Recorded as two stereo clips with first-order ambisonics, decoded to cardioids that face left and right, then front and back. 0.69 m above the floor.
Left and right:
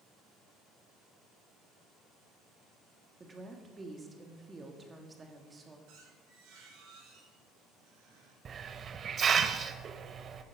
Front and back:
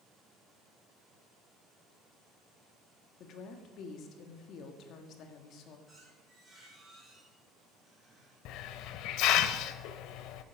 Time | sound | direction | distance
3.2 | a woman speaking | 20° right | 1.5 m
5.9 | a squeak | 90° right | 7.5 m
8.4 | a hiss | 25° right | 0.8 m